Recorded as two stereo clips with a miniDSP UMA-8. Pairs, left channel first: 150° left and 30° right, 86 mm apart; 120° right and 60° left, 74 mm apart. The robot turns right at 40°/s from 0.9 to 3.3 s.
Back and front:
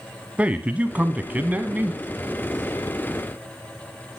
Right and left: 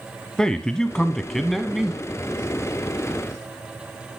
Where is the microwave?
I don't hear a microwave.